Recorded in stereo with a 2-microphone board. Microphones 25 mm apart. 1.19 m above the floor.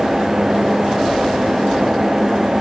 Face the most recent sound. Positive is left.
No sound to turn to.